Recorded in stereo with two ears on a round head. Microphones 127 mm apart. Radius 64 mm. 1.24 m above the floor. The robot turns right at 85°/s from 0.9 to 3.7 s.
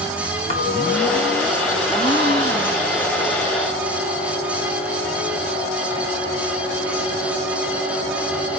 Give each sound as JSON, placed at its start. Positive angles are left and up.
{"t": 0.5, "sound": "a clink", "azimuth_deg": 130, "distance_m": 5.0}
{"t": 1.9, "sound": "a gasp", "azimuth_deg": -140, "distance_m": 2.5}